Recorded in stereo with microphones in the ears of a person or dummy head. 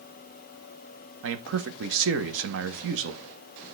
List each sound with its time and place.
1.2 s a man speaking: 70° right (ahead or behind), 1.4 m